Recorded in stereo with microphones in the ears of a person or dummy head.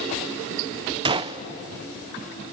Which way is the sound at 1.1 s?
25° right (ahead or behind).